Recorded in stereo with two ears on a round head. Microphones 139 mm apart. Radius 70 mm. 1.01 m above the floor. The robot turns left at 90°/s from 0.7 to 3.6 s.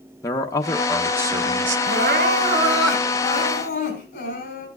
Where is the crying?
90° right, 3.5 m; by 4.7 s 110° left, 3.5 m.